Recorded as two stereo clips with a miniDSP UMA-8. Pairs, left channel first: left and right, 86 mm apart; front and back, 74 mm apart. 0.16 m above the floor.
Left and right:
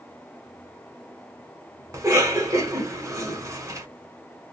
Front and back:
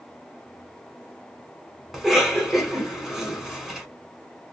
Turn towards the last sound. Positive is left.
turn(degrees=-100)